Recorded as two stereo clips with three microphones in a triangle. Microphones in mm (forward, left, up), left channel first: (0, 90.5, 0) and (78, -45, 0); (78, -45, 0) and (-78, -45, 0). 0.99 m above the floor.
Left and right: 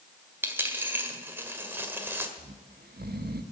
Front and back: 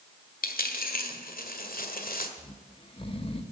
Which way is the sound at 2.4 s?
55° right.